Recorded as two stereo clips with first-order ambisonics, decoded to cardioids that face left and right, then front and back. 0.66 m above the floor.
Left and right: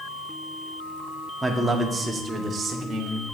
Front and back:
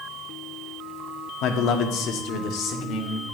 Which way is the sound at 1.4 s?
5° right.